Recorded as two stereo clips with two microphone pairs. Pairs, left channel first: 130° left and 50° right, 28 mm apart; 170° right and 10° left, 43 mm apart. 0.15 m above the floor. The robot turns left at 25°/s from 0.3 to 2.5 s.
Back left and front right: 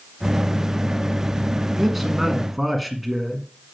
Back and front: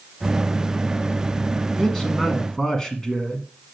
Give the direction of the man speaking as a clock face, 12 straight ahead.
4 o'clock.